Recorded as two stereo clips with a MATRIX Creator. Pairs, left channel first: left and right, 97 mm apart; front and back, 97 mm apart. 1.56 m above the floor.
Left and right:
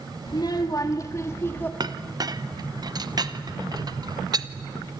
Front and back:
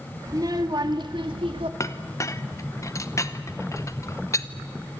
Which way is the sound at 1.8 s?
50° right.